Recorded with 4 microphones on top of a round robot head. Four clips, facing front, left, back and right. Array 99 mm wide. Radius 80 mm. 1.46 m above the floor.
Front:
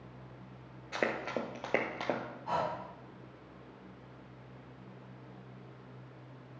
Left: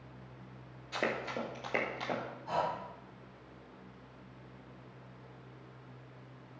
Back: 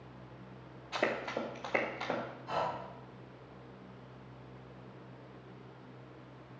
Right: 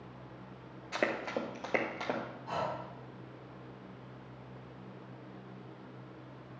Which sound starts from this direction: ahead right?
Running footsteps, at 0.9 s.